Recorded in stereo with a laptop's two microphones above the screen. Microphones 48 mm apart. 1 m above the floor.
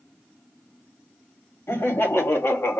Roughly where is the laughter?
Left.